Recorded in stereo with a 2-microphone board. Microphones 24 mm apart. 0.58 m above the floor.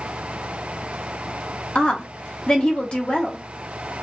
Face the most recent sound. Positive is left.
turn(degrees=40)  # may be behind; listen again after turning